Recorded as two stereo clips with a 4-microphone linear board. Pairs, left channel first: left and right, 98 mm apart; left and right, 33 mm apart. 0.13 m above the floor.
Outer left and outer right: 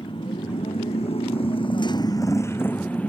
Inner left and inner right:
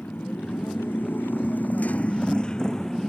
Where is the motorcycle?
60° left (ahead or behind); by 3.1 s 10° left (ahead or behind).